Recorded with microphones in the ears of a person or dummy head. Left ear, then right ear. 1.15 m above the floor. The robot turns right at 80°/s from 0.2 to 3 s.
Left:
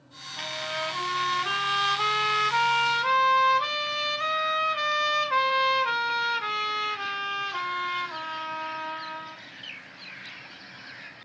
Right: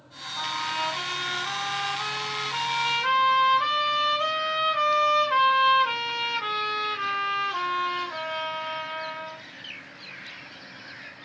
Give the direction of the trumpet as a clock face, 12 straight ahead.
1 o'clock.